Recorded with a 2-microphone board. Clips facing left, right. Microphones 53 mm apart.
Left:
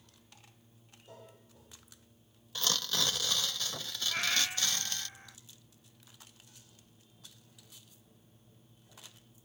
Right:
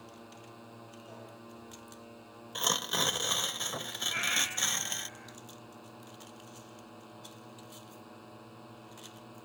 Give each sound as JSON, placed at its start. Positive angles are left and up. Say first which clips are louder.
{"t": 0.0, "sound": "a drone", "louder": "right 12 dB", "side_deg": -80}
{"t": 2.5, "sound": "tearing paper", "louder": "right 2 dB", "side_deg": -20}
{"t": 4.1, "sound": "a cat meowing", "louder": "even", "side_deg": -5}